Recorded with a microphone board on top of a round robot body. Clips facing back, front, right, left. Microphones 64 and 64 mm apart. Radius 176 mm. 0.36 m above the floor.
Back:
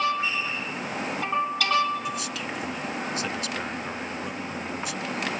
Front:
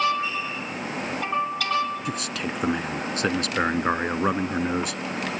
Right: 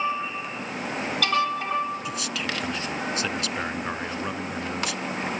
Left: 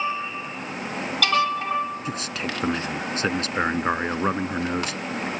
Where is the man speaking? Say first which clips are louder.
Front 2 dB, left 1 dB; 40° left.